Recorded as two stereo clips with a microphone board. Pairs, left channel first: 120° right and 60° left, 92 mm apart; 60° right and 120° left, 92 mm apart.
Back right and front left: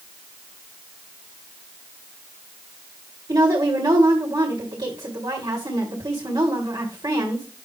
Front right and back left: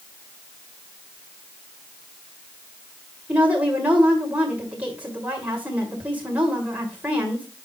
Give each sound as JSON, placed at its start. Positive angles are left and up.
{"t": 3.3, "sound": "a woman speaking", "azimuth_deg": 50, "distance_m": 2.0}